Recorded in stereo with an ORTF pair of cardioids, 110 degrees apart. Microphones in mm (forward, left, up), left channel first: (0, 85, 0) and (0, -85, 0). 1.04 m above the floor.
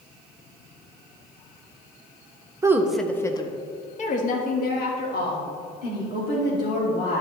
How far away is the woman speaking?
About 0.9 m.